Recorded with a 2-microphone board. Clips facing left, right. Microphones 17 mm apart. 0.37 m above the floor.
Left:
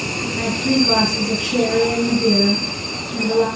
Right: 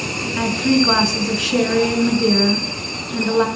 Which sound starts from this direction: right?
A woman speaking, at 0.4 s.